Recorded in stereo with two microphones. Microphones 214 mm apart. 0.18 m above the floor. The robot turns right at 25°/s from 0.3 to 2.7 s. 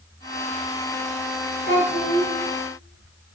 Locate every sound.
1.7 s a child speaking: 45° right (ahead or behind), 1.9 m; by 2.3 s 55° right (ahead or behind), 1.9 m